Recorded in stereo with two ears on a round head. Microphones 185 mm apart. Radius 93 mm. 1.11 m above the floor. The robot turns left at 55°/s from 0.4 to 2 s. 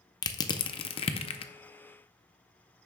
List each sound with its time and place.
0.2 s crushing: 20° left (ahead or behind), 0.5 m; by 1.5 s 25° left (ahead or behind), 0.5 m